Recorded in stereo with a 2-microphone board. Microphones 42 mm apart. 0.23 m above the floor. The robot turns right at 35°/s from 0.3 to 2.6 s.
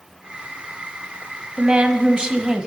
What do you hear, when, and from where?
1.6 s a woman speaking: 25° right (ahead or behind), 1.1 m; by 2.7 s 15° right (ahead or behind), 1.1 m